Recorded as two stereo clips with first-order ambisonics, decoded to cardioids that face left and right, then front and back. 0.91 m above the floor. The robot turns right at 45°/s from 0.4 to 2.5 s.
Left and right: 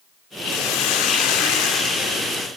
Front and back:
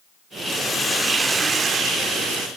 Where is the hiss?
65° left, 2 m; by 2.5 s 150° left, 2 m.